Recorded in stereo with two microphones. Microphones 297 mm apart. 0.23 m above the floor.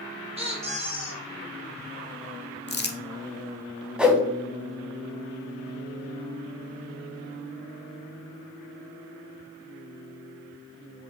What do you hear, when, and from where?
0.4 s a squeak: 20° right (ahead or behind), 1.4 m
2.7 s crumpling: 35° left (ahead or behind), 0.5 m
4.0 s a whoosh: 5° right (ahead or behind), 0.8 m